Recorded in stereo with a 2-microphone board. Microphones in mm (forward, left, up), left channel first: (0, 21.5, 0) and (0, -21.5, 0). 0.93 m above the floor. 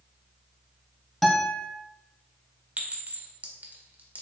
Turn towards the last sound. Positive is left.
turn(degrees=-45)  # may be behind; listen again after turning